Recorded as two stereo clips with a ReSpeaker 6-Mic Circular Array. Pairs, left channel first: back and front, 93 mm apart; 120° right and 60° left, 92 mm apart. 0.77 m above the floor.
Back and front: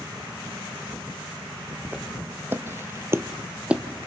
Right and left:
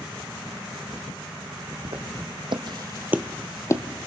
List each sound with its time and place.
1.9 s footsteps: 70° left, 2.5 m; by 3.8 s 80° right, 1.2 m